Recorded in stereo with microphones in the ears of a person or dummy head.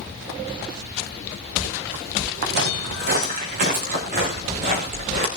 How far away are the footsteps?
About 4 m.